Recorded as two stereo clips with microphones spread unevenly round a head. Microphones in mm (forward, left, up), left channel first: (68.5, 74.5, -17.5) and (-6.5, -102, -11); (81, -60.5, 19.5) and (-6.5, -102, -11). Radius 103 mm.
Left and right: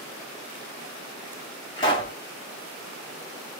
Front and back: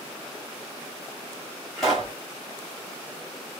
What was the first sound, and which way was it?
A pop, 60° left.